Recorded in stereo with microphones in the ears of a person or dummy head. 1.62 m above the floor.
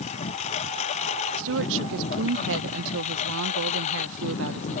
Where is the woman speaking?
65° right (ahead or behind).